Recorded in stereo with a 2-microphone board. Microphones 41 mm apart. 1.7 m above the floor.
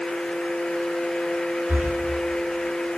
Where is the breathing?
45° right (ahead or behind), 3.5 m.